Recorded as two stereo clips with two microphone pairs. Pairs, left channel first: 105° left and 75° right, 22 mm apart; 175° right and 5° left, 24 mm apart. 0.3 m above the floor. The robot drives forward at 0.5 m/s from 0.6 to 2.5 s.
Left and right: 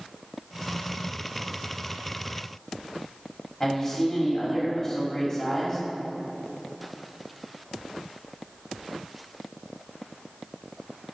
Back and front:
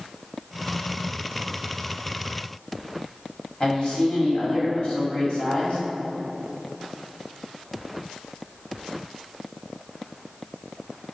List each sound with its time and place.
3.6 s a man speaking: 160° left, 1.6 m